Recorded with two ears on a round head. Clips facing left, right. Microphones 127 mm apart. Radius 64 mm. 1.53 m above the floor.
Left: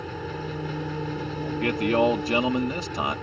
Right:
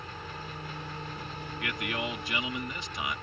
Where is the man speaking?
35° left (ahead or behind).